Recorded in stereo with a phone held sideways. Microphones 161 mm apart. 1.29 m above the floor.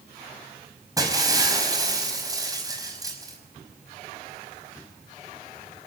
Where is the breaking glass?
25° right (ahead or behind), 5 m.